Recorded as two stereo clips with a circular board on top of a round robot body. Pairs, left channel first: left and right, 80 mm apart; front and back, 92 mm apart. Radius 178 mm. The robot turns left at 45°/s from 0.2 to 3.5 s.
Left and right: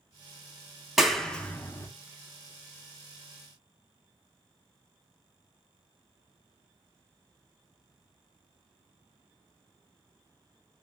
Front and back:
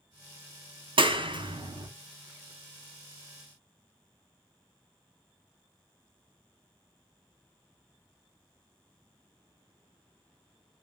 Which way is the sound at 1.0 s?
175° right.